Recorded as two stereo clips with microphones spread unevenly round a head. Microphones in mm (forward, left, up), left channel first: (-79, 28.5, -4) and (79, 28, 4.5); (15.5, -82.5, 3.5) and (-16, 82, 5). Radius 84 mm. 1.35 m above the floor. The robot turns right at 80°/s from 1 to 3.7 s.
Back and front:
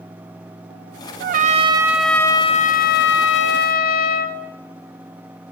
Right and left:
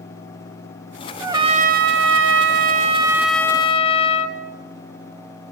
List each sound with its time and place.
1.2 s a trumpet: 20° left, 1.4 m; by 4.4 s 140° right, 1.4 m